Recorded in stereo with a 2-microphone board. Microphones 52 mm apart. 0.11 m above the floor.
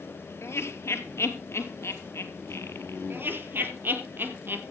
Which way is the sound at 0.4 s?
55° left (ahead or behind).